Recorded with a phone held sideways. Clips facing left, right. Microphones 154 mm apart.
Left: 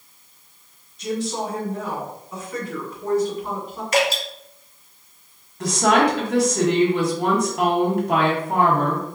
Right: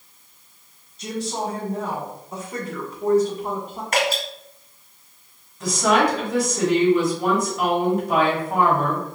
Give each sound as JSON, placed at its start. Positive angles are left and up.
{"t": 1.0, "sound": "a woman speaking", "side_deg": -35, "distance_m": 2.0}
{"t": 3.9, "sound": "dripping", "side_deg": -50, "distance_m": 1.9}
{"t": 5.6, "sound": "a woman speaking", "side_deg": 70, "distance_m": 1.6}